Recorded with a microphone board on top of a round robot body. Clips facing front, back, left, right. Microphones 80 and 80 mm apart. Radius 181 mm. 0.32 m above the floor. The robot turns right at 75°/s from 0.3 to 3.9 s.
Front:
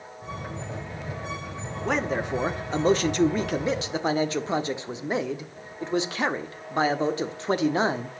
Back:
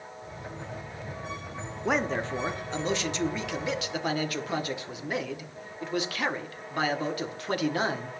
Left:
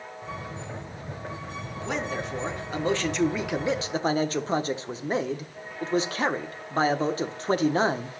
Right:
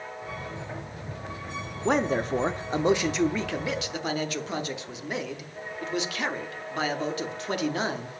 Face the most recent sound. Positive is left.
turn(degrees=50)